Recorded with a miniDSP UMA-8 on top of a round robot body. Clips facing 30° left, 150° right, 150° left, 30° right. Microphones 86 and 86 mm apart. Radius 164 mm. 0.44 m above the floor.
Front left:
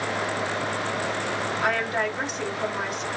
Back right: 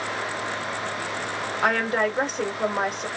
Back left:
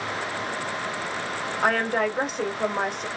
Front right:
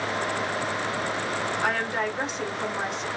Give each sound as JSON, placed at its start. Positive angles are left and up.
{"t": 1.6, "sound": "a woman speaking", "azimuth_deg": 170, "distance_m": 2.5}